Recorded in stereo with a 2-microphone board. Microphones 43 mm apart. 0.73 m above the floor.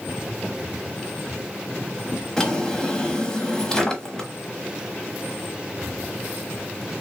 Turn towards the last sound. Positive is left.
turn(degrees=15)  # may be behind; listen again after turning